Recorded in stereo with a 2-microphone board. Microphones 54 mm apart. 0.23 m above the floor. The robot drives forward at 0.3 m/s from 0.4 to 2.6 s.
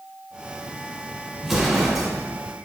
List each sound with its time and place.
1.4 s an explosion: 5° right (ahead or behind), 1.5 m